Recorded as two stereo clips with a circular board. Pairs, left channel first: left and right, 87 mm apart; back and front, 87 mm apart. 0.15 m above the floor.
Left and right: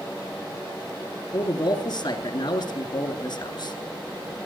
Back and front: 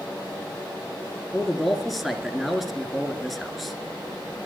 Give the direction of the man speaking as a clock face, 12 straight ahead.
9 o'clock.